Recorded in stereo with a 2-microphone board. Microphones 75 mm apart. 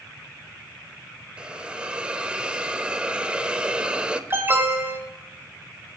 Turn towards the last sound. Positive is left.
turn(degrees=-35)  # may be behind; listen again after turning